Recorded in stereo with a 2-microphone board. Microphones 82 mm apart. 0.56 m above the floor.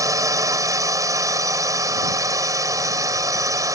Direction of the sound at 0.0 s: 45° right (ahead or behind).